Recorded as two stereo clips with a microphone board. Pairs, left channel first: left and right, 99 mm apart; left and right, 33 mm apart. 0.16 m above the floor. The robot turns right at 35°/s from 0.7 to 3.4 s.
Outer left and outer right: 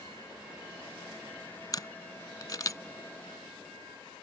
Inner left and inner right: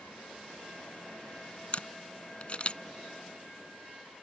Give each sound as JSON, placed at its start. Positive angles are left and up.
{"t": 1.7, "sound": "a camera shutter", "side_deg": 45}